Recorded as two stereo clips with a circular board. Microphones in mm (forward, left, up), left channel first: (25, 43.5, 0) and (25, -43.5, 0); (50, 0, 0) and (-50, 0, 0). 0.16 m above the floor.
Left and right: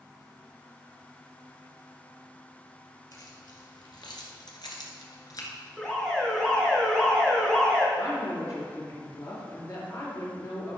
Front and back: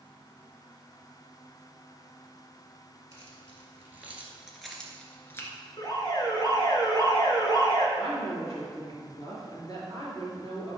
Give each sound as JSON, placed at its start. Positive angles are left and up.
{"t": 3.1, "sound": "keys jangling", "azimuth_deg": 125, "distance_m": 2.5}
{"t": 5.8, "sound": "an alarm", "azimuth_deg": 10, "distance_m": 2.0}
{"t": 8.0, "sound": "a woman speaking", "azimuth_deg": 45, "distance_m": 3.5}